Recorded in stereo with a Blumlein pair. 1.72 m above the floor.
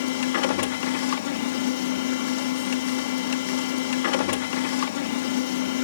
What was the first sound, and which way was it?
A machine running, 55° left.